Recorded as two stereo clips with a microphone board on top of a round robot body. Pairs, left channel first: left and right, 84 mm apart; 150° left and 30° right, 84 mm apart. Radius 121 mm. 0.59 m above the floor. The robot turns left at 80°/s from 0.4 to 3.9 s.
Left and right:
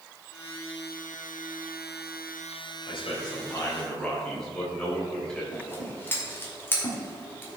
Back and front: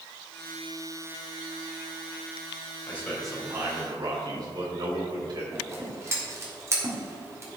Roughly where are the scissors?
Ahead left.